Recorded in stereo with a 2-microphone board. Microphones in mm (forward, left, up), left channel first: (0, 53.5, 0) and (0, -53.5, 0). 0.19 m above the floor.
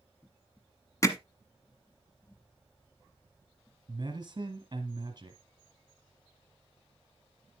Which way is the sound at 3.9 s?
40° right (ahead or behind).